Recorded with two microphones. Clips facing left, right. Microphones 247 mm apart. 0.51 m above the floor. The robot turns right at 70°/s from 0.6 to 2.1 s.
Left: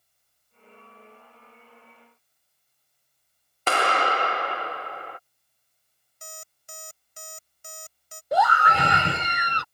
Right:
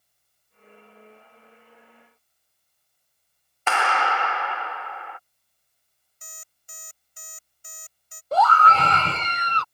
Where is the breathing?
No breathing in this recording.